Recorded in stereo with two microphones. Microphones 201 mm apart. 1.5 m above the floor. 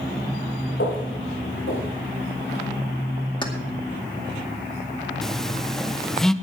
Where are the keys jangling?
25° left (ahead or behind), 2 m.